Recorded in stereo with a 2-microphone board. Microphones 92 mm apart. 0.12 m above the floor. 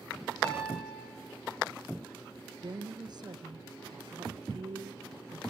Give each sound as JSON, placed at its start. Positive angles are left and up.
{"t": 0.4, "sound": "a piano", "side_deg": 15, "distance_m": 8.0}
{"t": 2.6, "sound": "a woman speaking", "side_deg": -50, "distance_m": 2.0}